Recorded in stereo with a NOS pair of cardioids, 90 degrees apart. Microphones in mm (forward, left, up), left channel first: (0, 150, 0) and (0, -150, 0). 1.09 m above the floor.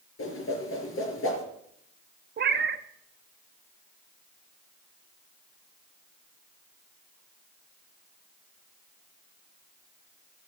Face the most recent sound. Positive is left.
turn(degrees=-35)